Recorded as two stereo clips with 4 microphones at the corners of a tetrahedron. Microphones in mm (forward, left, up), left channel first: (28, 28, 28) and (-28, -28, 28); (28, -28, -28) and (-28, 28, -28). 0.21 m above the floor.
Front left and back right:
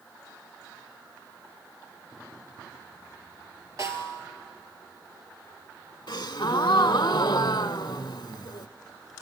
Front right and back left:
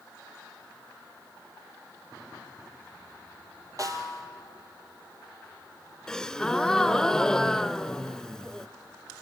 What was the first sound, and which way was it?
A snare drum, 175° left.